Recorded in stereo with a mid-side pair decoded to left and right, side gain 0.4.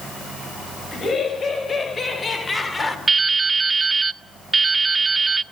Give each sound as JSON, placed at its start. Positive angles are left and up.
{"t": 0.9, "sound": "laughter", "azimuth_deg": 45, "distance_m": 5.5}
{"t": 3.1, "sound": "dripping", "azimuth_deg": -30, "distance_m": 0.6}